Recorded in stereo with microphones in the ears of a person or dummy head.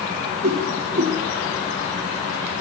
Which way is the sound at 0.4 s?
35° right (ahead or behind).